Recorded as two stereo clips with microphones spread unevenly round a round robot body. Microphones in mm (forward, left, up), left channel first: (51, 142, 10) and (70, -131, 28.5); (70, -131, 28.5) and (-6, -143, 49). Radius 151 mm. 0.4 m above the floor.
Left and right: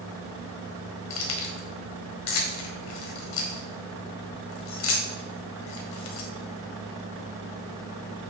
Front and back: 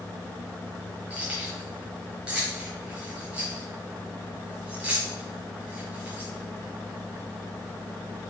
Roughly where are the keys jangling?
Left.